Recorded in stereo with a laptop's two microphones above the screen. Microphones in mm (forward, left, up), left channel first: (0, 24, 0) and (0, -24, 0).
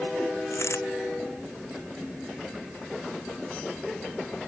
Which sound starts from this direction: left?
A dropped coin, at 0.5 s.